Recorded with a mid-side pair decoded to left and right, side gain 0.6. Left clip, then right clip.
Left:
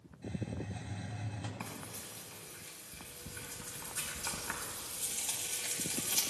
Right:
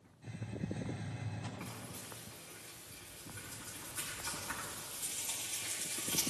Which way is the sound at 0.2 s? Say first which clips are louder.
Left 2 dB; 35° left.